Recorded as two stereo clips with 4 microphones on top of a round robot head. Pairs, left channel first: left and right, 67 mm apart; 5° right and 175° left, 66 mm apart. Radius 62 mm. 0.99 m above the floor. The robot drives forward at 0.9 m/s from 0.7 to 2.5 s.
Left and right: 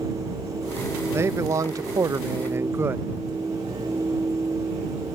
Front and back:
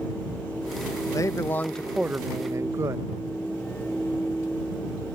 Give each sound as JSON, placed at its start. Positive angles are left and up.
{"t": 1.1, "sound": "a man speaking", "azimuth_deg": -40}